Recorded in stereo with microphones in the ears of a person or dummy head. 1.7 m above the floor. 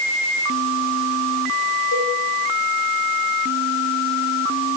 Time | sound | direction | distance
1.9 | a cowbell | 85° left | 8.5 m